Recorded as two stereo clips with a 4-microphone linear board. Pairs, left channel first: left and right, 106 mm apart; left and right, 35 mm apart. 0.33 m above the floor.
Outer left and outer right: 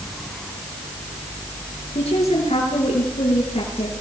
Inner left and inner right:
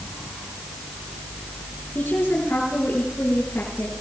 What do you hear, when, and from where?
1.9 s a woman speaking: 75° left (ahead or behind), 6.5 m